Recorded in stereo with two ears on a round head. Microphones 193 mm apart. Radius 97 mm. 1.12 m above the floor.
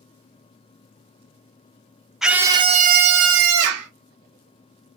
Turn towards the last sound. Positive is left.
turn(degrees=-85)